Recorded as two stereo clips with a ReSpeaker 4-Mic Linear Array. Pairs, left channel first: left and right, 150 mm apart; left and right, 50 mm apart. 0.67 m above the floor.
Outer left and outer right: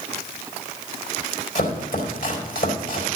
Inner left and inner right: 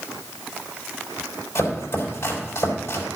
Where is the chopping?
70° left (ahead or behind), 4 m.